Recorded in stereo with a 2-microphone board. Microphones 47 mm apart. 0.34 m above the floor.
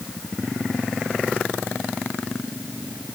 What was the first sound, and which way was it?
Only background noise.